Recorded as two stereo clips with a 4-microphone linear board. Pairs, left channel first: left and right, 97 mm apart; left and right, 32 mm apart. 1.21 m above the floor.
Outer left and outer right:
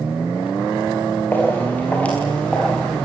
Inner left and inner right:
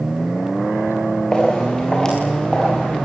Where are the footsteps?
20° left (ahead or behind), 8 m; by 3.0 s 10° left (ahead or behind), 8 m.